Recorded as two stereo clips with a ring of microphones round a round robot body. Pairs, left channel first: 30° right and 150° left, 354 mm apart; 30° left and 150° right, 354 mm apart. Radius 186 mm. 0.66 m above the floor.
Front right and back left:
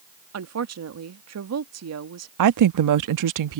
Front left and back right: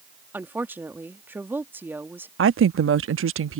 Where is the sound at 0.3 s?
125° left.